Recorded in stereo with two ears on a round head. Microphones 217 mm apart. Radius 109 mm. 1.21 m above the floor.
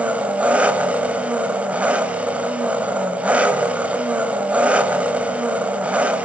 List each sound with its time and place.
0.0 s an engine running: 5° right (ahead or behind), 2 m